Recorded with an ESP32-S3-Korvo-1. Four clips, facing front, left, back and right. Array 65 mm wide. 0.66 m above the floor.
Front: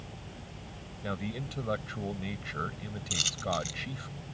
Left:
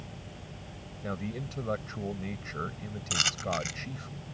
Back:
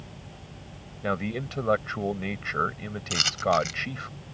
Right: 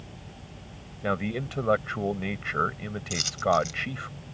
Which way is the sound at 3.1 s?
135° left.